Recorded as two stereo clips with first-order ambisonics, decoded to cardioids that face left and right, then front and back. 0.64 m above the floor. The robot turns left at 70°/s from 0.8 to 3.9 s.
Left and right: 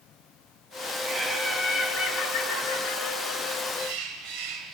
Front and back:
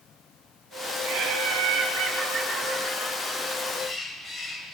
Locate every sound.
1.0 s laughter: 160° right, 10 m; by 3.6 s 15° left, 10 m
3.7 s a bird: 60° right, 3.5 m; by 4.8 s 70° right, 3.5 m